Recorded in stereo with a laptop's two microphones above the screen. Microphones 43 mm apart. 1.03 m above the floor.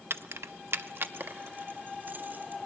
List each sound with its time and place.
0.1 s keys jangling: 70° right (ahead or behind), 0.6 m; by 2.6 s 45° right (ahead or behind), 2.5 m